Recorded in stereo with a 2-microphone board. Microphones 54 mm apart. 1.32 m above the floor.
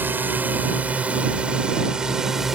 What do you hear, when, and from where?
0.0 s a drone: 35° right (ahead or behind); by 2.6 s 10° right (ahead or behind)